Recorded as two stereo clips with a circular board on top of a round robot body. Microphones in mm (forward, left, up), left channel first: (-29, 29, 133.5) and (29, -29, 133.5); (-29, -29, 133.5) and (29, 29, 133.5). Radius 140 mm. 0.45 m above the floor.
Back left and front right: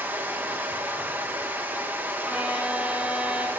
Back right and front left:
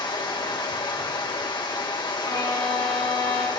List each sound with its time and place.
0.0 s running water: 110° right, 2.5 m
2.2 s a violin: 120° right, 5.5 m